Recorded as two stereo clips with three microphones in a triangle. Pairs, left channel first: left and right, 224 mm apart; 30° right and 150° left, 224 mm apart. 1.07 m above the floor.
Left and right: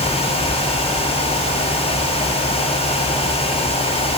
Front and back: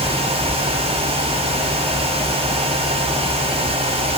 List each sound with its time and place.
Only background noise.